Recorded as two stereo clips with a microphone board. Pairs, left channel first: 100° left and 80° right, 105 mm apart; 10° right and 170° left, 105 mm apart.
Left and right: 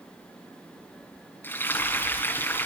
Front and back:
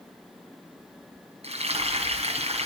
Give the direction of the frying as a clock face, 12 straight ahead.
6 o'clock.